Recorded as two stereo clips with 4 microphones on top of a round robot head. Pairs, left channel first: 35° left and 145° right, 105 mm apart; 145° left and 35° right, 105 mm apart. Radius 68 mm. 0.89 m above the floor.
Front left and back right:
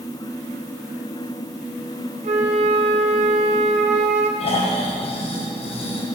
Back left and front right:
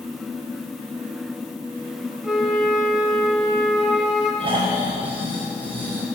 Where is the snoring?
5° left, 4.5 m.